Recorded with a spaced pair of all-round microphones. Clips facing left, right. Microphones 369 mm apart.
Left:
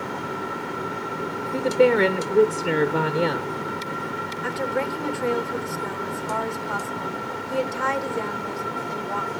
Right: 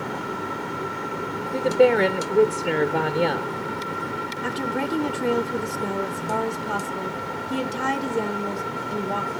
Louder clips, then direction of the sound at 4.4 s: Even; 45° right (ahead or behind).